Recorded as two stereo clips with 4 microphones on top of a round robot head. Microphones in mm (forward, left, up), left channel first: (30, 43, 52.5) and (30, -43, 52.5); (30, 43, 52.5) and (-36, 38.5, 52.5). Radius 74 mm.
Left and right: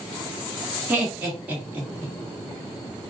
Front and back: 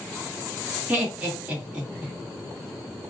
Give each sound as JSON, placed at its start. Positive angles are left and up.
{"t": 0.9, "sound": "laughter", "azimuth_deg": -130, "distance_m": 1.0}